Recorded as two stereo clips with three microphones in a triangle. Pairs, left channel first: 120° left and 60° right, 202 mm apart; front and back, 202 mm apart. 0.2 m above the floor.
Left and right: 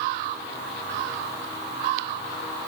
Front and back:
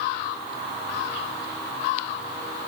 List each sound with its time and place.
Only background noise.